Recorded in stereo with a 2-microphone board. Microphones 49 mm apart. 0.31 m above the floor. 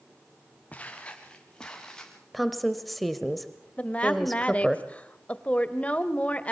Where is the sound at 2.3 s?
Centre (ahead or behind), 1.0 m.